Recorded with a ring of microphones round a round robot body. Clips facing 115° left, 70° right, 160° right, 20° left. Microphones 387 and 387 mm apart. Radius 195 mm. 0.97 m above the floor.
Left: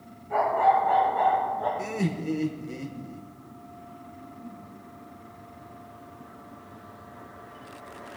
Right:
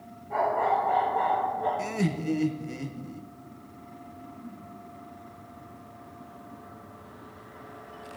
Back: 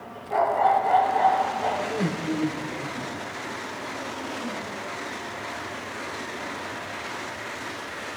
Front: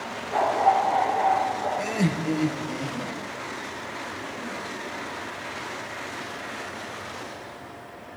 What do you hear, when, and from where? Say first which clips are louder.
0.3 s a dog barking: left 2 dB, back 1 dB; 160° right, 6.5 m; by 1.7 s 165° right, 8.5 m
1.8 s laughter: right 1 dB, front 3 dB; 5° left, 0.9 m